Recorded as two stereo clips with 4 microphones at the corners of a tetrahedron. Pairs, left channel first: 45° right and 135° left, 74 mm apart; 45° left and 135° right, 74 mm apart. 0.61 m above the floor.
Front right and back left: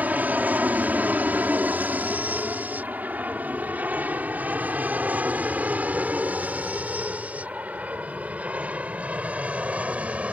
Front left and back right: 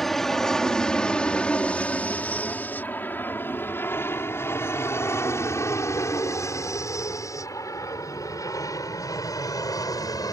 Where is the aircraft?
125° left; by 10.3 s 65° left.